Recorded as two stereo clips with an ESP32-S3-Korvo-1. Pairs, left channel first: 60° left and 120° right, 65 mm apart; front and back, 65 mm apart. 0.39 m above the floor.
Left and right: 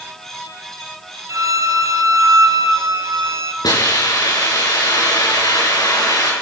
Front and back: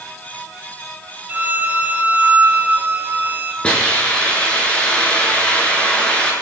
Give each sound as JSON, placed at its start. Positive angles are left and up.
{"t": 1.3, "sound": "a violin", "azimuth_deg": -125, "distance_m": 1.8}
{"t": 3.6, "sound": "a hiss", "azimuth_deg": 75, "distance_m": 6.5}